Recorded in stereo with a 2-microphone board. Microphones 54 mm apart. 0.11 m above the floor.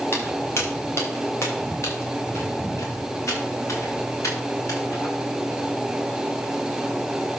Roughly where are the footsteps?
Left.